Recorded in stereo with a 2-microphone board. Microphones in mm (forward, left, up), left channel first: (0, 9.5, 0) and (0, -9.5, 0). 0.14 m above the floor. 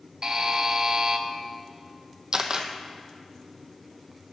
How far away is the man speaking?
I don't hear a man speaking.